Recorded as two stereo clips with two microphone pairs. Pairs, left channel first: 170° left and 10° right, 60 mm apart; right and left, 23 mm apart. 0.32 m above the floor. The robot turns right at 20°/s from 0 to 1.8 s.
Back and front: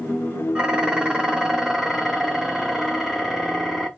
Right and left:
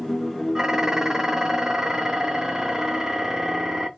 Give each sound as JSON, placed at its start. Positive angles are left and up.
{"t": 0.6, "sound": "dishes clattering", "azimuth_deg": 40, "distance_m": 0.9}